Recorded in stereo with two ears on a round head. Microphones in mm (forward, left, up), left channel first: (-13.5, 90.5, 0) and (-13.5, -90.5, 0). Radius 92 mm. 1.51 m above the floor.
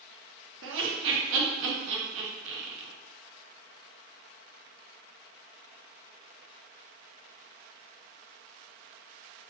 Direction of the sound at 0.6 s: 65° right (ahead or behind).